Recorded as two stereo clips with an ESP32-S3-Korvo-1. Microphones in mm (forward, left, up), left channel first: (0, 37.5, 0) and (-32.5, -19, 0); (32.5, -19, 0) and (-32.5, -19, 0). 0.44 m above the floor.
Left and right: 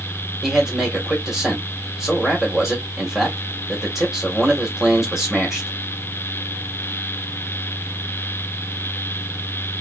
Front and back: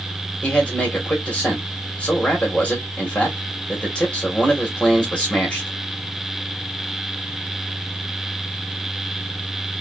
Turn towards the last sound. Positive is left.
turn(degrees=-45)